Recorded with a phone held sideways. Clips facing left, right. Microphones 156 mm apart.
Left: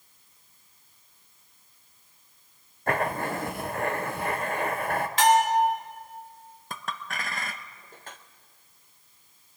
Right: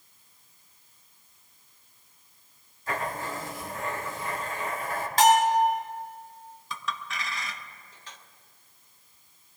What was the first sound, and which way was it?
Writing, 60° left (ahead or behind).